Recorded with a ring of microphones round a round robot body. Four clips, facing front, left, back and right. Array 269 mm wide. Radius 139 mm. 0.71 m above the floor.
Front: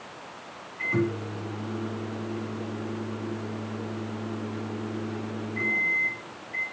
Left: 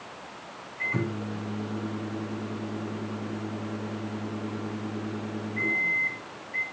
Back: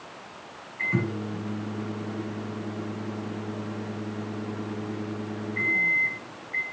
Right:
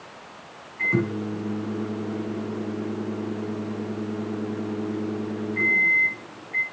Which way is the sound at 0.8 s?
105° right.